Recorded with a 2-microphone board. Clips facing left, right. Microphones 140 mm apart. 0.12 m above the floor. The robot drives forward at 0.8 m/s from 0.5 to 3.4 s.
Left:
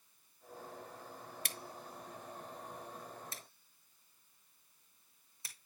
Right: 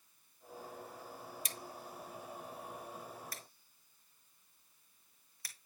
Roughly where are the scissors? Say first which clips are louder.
Right 1 dB; left.